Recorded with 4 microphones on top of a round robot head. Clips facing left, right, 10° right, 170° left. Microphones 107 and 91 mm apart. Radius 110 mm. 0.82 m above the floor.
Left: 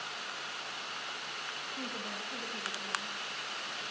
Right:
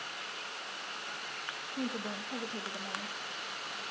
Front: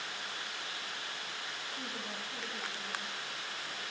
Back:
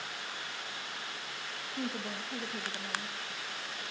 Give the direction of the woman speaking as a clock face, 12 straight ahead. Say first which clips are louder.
Right 6 dB, back 9 dB; 5 o'clock.